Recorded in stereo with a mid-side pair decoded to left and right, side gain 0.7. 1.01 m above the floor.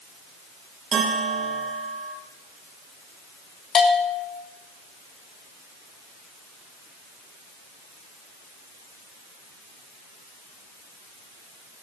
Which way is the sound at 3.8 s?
45° left.